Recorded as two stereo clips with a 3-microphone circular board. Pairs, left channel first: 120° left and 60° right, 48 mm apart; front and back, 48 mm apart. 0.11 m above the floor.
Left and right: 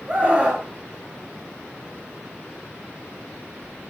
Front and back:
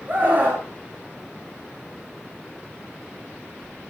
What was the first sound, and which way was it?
A scream, 120° right.